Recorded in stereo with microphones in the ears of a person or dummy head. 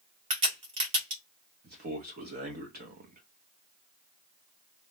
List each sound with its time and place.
0.3 s a crack: 30° right (ahead or behind), 1.2 m
1.6 s a man speaking: 45° right (ahead or behind), 1.2 m